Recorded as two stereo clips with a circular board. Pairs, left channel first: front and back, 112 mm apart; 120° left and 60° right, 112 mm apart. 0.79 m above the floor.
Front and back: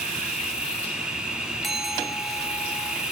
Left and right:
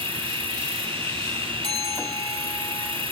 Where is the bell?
90° left, 3.5 m.